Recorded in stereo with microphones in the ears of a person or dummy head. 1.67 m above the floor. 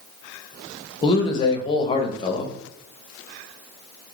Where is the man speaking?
25° left (ahead or behind), 0.5 m.